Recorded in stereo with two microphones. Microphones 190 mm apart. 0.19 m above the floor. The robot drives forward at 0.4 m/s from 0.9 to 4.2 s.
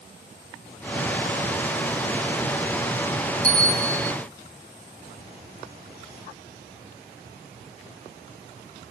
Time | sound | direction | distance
3.4 | a bell | 15° right (ahead or behind) | 2.5 m